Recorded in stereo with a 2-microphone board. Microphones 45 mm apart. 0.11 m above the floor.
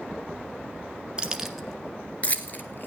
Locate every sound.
1.2 s keys jangling: 20° right (ahead or behind), 1.0 m; by 2.9 s 45° left (ahead or behind), 1.6 m